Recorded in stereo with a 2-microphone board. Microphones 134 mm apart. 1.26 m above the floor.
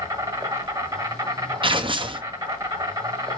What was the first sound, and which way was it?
An insect, 30° right (ahead or behind).